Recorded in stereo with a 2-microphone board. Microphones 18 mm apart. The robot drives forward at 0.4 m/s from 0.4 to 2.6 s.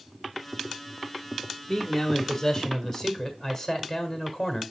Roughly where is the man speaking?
Centre.